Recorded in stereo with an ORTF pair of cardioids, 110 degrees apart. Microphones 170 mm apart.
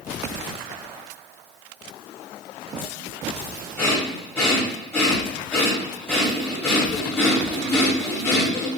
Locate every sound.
3.8 s breathing: 10° left, 1.9 m